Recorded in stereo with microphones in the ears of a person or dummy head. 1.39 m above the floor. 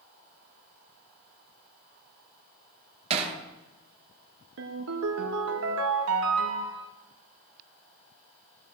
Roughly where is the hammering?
Right.